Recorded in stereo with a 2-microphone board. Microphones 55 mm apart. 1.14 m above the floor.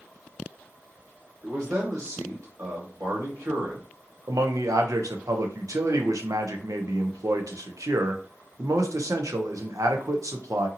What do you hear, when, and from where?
1.4 s a man speaking: 75° right (ahead or behind), 1.5 m
4.3 s a man speaking: 80° right, 0.6 m